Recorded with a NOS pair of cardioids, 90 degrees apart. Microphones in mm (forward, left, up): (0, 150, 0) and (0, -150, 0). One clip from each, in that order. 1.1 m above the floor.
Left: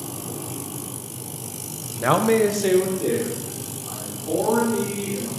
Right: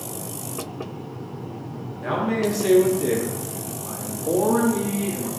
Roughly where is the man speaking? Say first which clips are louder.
Left 6 dB; ahead left.